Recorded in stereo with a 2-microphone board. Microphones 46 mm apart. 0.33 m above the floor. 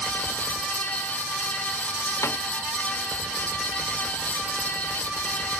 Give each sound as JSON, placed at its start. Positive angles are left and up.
{"t": 2.2, "sound": "a snare drum", "side_deg": 85}